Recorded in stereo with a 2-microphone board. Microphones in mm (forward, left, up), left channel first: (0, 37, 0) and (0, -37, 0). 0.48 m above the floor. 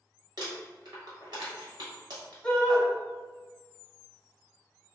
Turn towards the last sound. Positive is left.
turn(degrees=15)  # may be behind; listen again after turning